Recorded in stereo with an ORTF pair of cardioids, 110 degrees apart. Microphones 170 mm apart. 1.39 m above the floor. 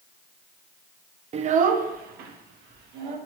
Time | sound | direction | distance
1.3 | a child speaking | 40° right | 0.7 m